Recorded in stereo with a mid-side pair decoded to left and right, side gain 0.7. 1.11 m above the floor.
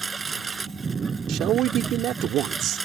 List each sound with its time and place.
0.0 s a lawn mower: 25° right
1.3 s a man speaking: 55° right